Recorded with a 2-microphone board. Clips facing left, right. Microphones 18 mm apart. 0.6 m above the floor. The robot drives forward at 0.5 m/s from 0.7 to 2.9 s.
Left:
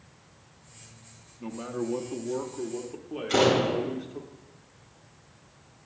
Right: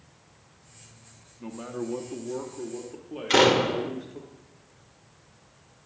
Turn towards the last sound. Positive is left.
turn(degrees=-65)  # may be behind; listen again after turning